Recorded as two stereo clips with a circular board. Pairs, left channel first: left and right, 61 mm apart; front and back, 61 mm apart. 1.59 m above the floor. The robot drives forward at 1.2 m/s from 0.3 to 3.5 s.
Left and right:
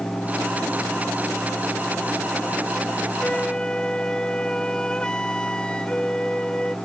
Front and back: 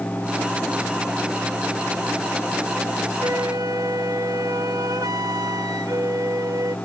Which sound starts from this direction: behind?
A flute, at 3.2 s.